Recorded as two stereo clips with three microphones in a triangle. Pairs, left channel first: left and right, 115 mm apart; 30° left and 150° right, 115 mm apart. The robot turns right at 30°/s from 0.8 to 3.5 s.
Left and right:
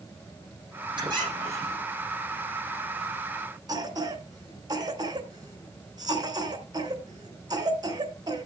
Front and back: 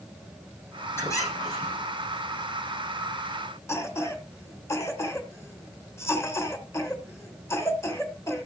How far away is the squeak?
About 8 m.